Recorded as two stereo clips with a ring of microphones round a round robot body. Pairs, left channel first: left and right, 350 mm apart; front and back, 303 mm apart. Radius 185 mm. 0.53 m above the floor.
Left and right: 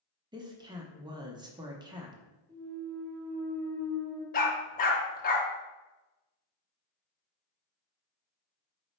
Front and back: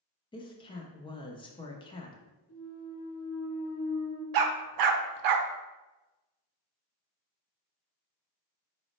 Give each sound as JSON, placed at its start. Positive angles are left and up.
{"t": 0.3, "sound": "a woman speaking", "azimuth_deg": -35, "distance_m": 0.6}
{"t": 2.5, "sound": "a clunk", "azimuth_deg": 5, "distance_m": 1.2}
{"t": 4.3, "sound": "a dog barking", "azimuth_deg": 160, "distance_m": 0.5}